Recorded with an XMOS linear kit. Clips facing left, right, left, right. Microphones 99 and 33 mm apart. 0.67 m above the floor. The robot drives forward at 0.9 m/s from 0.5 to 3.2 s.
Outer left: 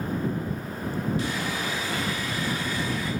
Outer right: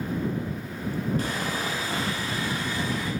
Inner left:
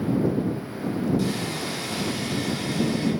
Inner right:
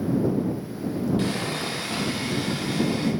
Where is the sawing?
50° right (ahead or behind), 1.5 m; by 3.1 s 20° right (ahead or behind), 3 m.